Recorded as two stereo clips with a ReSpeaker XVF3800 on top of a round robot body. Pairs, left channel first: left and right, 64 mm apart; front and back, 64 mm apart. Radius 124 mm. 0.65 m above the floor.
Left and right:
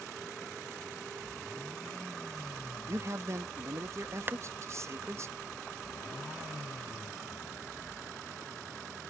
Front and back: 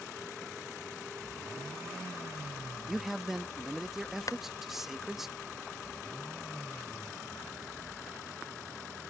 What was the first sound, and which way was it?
A man speaking, 95° right.